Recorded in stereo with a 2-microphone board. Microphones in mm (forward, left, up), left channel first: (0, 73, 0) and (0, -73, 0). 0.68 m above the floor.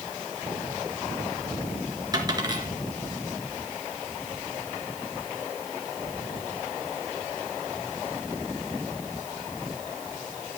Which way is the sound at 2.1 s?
25° right (ahead or behind).